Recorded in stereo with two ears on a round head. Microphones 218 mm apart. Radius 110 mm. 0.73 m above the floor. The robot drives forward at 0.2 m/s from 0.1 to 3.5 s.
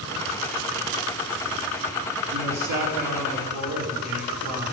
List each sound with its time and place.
2.3 s a man speaking: 80° right, 5.5 m